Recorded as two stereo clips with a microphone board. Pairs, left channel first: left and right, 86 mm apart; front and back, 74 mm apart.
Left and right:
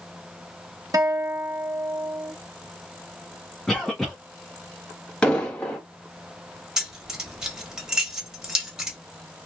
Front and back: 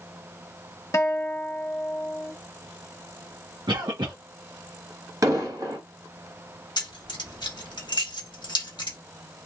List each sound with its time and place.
0.9 s a guitar: 50° right, 0.8 m
3.7 s a cough: 175° left, 0.7 m
5.2 s an explosion: 165° left, 1.4 m
6.8 s keys jangling: 10° right, 1.1 m